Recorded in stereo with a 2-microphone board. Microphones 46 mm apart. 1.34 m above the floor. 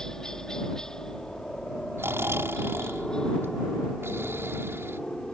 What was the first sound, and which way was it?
A helicopter, 15° left (ahead or behind).